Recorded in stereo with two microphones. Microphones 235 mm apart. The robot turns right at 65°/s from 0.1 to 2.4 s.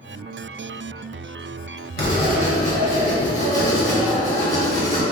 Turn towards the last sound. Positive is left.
turn(degrees=30)  # may be behind; listen again after turning